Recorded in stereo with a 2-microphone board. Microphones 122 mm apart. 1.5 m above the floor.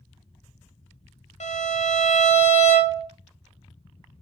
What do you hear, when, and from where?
1.4 s a violin: 65° left (ahead or behind), 0.7 m